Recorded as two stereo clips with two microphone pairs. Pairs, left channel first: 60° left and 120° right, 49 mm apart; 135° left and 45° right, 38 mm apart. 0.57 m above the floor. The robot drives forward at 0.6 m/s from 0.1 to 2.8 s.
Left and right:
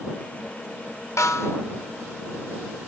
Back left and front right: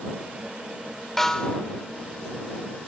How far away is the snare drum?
About 0.6 m.